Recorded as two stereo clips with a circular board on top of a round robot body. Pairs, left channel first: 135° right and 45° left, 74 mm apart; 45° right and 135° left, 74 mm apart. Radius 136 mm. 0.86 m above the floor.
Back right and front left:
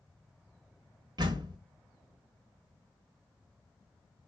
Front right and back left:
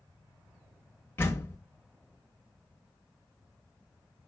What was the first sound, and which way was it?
A door slam, 15° left.